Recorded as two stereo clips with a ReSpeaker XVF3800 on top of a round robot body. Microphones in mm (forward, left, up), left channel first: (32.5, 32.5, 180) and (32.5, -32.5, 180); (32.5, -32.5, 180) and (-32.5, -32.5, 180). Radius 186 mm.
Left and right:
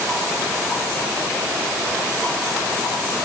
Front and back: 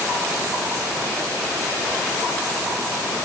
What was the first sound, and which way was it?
Only background noise.